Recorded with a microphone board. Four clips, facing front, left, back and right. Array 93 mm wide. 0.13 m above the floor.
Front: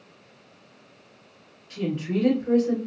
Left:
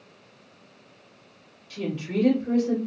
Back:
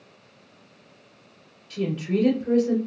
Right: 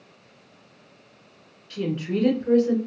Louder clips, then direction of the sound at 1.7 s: Right 2 dB, back 2 dB; 75° right.